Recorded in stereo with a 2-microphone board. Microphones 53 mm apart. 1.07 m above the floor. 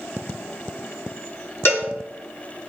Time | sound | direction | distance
1.6 | a cowbell | 55° left (ahead or behind) | 3.5 m